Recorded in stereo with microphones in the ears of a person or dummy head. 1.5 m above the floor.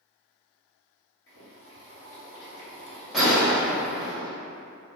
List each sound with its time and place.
1.3 s boiling: 60° left (ahead or behind), 1.9 m
3.1 s a gunshot: 5° right (ahead or behind), 0.9 m